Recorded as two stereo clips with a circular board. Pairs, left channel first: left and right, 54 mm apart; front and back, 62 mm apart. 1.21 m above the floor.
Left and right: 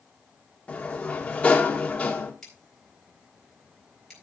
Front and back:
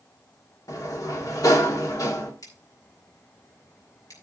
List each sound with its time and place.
0.7 s a sliding door: 25° left, 2 m
2.4 s scissors: 10° left, 4.5 m